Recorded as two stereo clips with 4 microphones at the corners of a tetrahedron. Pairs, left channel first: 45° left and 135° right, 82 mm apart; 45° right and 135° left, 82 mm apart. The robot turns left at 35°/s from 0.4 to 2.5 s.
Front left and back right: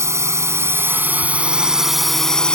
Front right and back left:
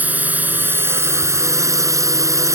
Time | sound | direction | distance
0.0 | a drone | 165° right | ?